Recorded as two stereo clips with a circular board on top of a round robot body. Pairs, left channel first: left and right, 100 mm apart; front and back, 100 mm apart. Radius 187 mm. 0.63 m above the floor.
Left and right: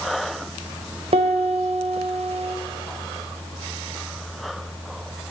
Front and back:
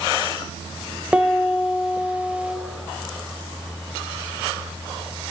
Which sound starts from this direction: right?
A piano, at 1.1 s.